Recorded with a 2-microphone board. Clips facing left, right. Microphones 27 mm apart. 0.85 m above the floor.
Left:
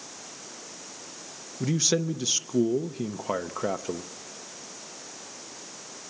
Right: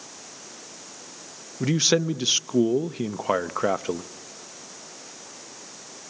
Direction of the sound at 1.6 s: 35° right (ahead or behind).